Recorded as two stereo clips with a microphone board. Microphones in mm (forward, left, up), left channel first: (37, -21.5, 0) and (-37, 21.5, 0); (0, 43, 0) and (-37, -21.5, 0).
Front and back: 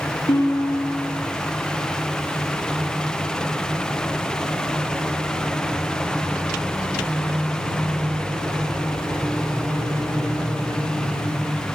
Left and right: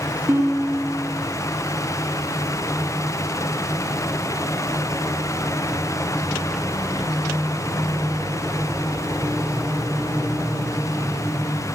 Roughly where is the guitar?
Ahead right.